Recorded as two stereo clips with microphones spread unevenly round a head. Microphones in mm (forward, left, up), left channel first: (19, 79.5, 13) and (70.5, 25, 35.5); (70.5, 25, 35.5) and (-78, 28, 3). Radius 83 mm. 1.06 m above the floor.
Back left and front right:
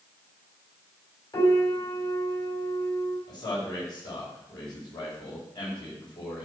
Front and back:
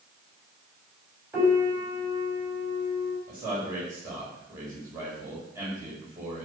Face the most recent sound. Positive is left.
turn(degrees=105)